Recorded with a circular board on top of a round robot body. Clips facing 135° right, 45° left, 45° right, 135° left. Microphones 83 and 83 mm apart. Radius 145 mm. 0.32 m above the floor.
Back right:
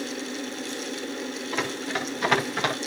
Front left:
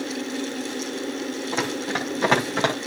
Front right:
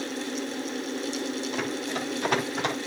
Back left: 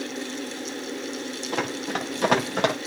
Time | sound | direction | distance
1.5 | running footsteps | 110° left | 6.5 m